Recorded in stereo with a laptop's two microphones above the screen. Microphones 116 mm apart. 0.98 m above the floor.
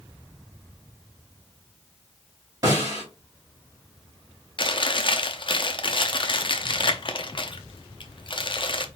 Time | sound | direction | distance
2.6 | a snare drum | 30° right (ahead or behind) | 3 m
4.6 | chewing | 45° left (ahead or behind) | 0.5 m